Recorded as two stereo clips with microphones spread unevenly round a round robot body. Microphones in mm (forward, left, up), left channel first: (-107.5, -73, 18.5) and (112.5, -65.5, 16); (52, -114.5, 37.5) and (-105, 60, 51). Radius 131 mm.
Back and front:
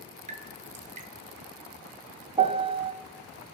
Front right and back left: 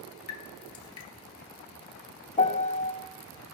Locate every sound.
0.3 s dripping: 55° right, 1.1 m
2.4 s a piano: 40° right, 0.7 m